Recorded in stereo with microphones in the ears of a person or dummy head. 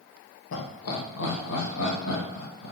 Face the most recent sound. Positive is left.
turn(degrees=75)  # may be behind; listen again after turning